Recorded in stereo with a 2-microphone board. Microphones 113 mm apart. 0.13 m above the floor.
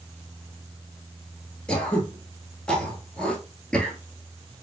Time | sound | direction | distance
1.7 | throat clearing | 10° left (ahead or behind) | 1.1 m